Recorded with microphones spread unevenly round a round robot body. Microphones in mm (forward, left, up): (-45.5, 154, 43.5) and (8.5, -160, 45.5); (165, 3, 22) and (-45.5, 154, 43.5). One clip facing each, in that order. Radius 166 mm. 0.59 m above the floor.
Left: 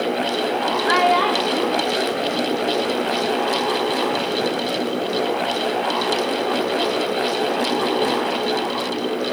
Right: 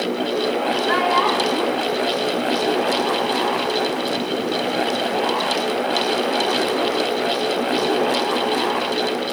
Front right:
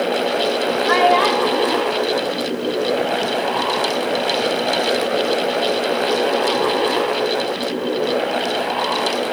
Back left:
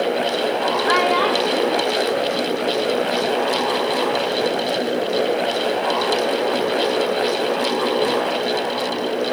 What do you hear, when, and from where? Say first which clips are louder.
0.9 s a child speaking: left 1 dB, front right 2 dB; 75° left, 1.6 m; by 3.2 s straight ahead, 1.5 m